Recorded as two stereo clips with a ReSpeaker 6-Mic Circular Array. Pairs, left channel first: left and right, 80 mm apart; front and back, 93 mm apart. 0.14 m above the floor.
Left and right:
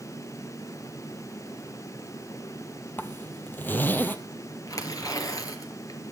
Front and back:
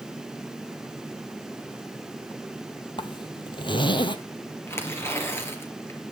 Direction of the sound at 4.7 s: 60° left.